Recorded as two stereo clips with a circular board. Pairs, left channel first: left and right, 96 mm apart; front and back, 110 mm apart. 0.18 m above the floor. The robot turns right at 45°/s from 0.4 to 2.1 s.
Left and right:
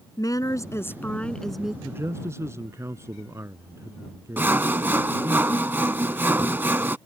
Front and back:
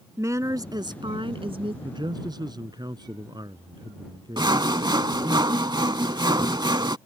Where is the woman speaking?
125° left; by 1.7 s 175° right.